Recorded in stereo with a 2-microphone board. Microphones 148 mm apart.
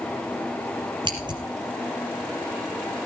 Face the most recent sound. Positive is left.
turn(degrees=-30)  # may be behind; listen again after turning